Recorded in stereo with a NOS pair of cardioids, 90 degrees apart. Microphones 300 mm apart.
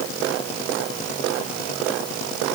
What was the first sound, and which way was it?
Only background noise.